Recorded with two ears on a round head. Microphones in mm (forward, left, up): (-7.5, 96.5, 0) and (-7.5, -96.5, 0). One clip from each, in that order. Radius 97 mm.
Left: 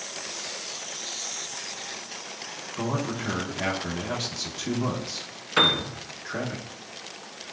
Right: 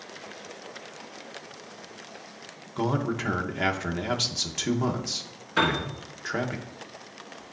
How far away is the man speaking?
About 0.9 m.